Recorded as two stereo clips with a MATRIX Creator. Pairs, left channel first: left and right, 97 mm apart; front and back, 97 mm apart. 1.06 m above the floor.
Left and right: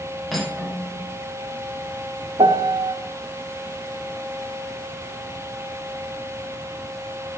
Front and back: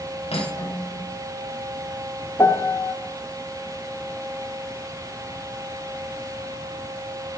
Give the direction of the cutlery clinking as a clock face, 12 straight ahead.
12 o'clock.